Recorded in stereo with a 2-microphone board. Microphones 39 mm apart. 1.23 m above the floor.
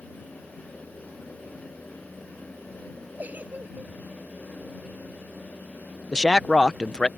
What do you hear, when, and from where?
3.2 s a giggle: 45° right (ahead or behind)
6.1 s a man speaking: 20° left (ahead or behind)